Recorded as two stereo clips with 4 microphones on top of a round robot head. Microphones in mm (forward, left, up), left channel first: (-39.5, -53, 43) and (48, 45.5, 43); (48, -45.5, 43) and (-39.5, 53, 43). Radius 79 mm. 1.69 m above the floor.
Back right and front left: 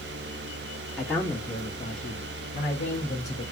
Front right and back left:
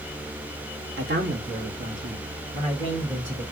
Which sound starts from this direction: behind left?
A man speaking, at 1.0 s.